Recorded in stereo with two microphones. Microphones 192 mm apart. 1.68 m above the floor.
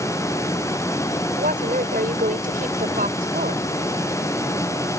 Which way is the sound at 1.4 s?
45° right (ahead or behind).